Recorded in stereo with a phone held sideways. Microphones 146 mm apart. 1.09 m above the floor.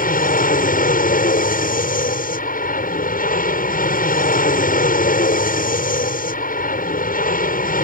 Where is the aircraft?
70° left (ahead or behind).